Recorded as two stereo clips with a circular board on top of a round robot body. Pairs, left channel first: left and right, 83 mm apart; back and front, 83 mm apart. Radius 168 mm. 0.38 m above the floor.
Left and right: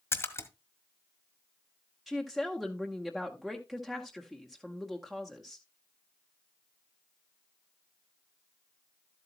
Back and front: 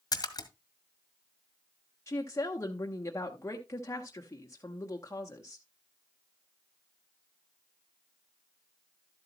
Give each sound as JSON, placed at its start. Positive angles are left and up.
{"t": 0.1, "sound": "a splash", "azimuth_deg": 145, "distance_m": 1.3}
{"t": 2.1, "sound": "a woman speaking", "azimuth_deg": -175, "distance_m": 1.3}